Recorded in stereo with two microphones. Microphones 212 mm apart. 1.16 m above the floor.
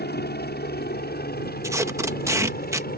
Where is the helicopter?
50° left (ahead or behind); by 3.0 s 45° left (ahead or behind).